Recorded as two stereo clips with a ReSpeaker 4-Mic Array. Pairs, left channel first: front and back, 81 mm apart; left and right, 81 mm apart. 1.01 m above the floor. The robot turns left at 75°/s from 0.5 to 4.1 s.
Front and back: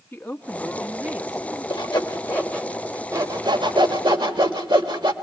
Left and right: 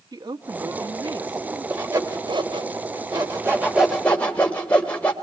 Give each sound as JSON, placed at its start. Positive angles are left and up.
{"t": 0.1, "sound": "a woman speaking", "azimuth_deg": -70, "distance_m": 1.5}
{"t": 1.7, "sound": "sawing", "azimuth_deg": -15, "distance_m": 3.0}